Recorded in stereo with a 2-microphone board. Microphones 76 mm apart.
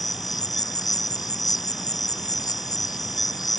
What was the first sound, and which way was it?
An insect, 55° left (ahead or behind).